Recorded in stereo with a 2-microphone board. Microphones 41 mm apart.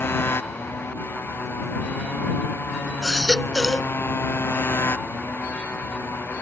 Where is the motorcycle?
90° left; by 6.4 s 85° left.